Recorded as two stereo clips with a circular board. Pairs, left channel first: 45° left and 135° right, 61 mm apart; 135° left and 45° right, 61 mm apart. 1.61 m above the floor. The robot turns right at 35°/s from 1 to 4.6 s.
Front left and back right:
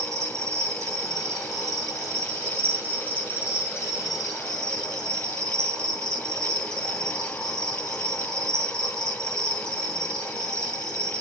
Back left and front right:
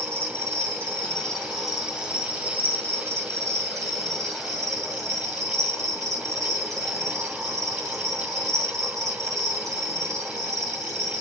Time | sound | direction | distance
0.0 | an insect | 165° right | 3 m